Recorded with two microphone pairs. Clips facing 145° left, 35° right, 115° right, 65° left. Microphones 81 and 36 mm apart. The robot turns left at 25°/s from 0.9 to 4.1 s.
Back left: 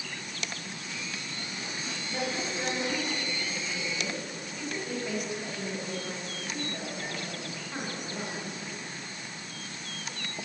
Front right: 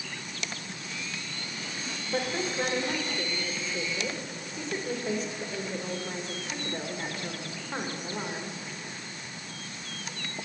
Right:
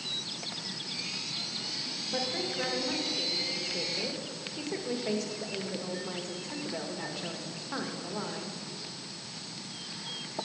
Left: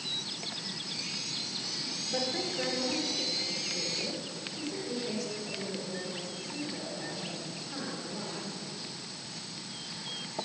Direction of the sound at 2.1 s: 40° right.